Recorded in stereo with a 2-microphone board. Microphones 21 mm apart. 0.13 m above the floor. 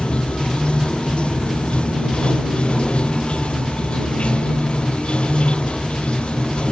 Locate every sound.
0.0 s running water: 60° left (ahead or behind)